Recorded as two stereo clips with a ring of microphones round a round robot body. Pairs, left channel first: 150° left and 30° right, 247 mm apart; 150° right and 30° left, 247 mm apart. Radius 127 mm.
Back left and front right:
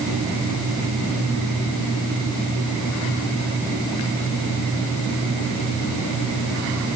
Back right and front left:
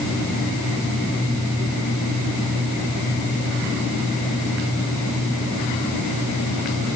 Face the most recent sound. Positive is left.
No sound to turn to.